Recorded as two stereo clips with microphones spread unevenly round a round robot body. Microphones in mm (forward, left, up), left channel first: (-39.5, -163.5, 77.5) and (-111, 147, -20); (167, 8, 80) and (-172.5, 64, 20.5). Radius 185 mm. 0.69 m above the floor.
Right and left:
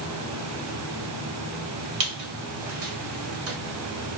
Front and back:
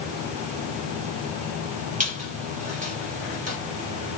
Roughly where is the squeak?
Left.